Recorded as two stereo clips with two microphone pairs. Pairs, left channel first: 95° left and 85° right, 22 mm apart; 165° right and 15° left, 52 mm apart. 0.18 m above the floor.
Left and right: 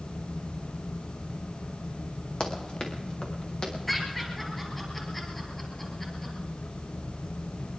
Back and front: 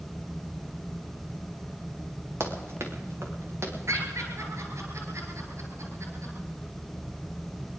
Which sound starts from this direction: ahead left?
Running footsteps, at 2.4 s.